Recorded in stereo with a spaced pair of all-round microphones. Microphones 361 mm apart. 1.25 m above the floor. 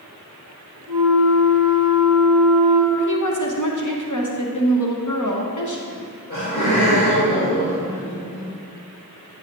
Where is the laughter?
25° left (ahead or behind), 2 m.